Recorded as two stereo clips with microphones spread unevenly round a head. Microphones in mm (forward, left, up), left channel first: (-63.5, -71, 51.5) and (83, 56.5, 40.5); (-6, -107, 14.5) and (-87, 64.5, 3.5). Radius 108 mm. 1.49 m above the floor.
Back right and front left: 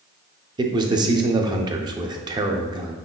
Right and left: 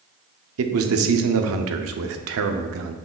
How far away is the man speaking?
About 0.5 m.